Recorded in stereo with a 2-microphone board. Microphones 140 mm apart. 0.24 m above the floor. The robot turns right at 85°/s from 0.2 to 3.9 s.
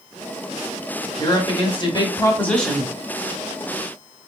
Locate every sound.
1.2 s a woman speaking: 50° left, 1.2 m; by 3.0 s 160° right, 1.2 m